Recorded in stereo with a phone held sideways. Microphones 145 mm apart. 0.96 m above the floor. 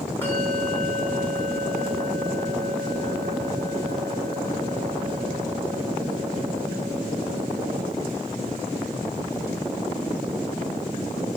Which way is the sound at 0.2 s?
15° left (ahead or behind).